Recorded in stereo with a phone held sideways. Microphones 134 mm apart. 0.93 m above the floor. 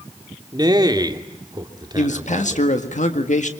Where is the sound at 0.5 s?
30° right (ahead or behind), 2.5 m.